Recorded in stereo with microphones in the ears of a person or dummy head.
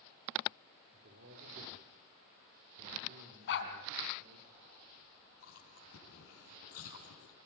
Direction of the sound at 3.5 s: 65° left (ahead or behind).